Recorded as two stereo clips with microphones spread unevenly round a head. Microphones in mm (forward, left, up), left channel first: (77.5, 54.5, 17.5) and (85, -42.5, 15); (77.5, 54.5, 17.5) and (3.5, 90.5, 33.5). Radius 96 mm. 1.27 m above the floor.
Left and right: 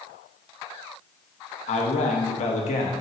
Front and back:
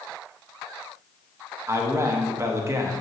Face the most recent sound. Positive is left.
turn(degrees=100)